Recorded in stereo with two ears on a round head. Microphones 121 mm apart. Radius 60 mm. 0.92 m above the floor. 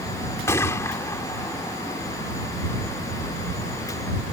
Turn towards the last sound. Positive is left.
turn(degrees=20)  # may be behind; listen again after turning